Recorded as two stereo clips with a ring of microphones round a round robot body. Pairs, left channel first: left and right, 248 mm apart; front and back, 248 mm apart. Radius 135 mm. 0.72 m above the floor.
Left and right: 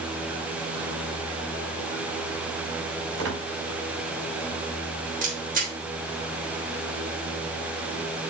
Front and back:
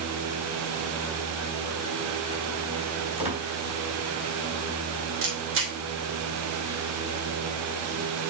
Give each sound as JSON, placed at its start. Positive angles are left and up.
{"t": 3.2, "sound": "a squeak", "azimuth_deg": -115, "distance_m": 4.0}
{"t": 5.2, "sound": "a camera shutter", "azimuth_deg": -145, "distance_m": 3.0}